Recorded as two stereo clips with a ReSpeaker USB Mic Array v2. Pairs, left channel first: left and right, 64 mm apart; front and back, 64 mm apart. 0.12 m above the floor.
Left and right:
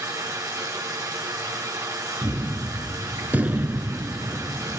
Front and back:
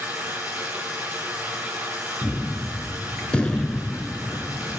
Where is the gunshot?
60° right, 0.7 m.